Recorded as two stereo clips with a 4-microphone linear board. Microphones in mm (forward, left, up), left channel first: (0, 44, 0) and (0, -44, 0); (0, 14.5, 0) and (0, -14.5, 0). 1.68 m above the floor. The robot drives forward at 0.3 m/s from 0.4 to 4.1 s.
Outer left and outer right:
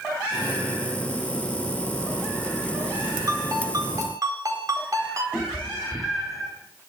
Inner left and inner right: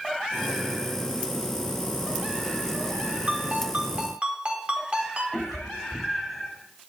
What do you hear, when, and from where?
3.3 s a ringtone: 45° right (ahead or behind), 4 m; by 5.2 s 40° right (ahead or behind), 4.5 m
5.3 s a cat meowing: 5° right (ahead or behind), 3 m